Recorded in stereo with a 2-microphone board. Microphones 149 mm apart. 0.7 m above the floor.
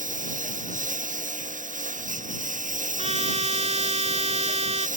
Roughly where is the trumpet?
Right.